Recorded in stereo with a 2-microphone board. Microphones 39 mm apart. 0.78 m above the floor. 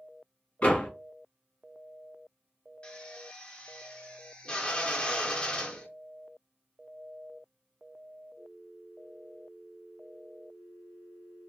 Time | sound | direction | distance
0.6 | a door slam | 40° left (ahead or behind) | 1.2 m
2.8 | a drill | 25° left (ahead or behind) | 0.5 m